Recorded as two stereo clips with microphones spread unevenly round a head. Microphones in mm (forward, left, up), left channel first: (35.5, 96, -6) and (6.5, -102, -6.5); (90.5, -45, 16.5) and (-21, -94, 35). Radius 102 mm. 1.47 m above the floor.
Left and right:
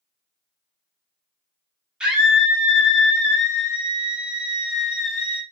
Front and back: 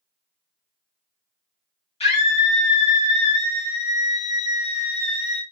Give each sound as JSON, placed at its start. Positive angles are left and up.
{"t": 2.0, "sound": "a scream", "azimuth_deg": -10, "distance_m": 1.7}